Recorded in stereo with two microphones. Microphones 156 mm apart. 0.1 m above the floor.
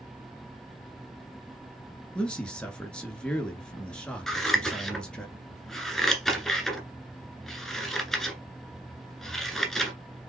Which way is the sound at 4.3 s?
Centre (ahead or behind).